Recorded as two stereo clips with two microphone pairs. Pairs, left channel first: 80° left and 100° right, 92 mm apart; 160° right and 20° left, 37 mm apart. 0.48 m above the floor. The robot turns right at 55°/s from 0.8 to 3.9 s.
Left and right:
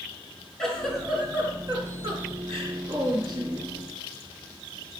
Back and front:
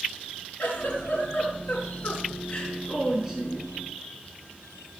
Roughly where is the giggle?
Behind.